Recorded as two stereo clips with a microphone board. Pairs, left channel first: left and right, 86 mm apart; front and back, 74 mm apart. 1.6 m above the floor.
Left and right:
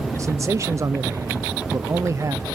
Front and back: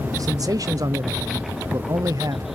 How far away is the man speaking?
About 0.6 m.